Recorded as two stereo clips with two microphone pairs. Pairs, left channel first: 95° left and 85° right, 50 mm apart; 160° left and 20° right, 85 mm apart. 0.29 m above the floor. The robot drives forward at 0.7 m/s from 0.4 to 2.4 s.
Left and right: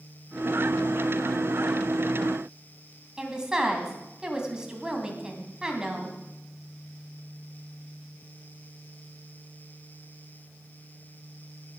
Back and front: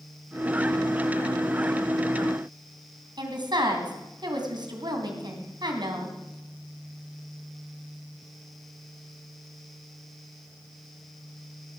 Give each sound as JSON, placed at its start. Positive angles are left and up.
{"t": 3.2, "sound": "a woman speaking", "azimuth_deg": -10, "distance_m": 2.5}